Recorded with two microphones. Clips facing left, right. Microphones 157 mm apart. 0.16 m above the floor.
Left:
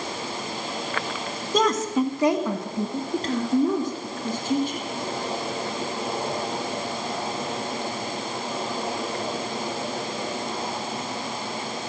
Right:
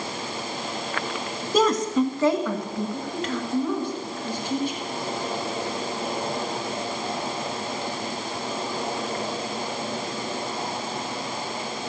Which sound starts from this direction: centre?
A woman speaking, at 1.5 s.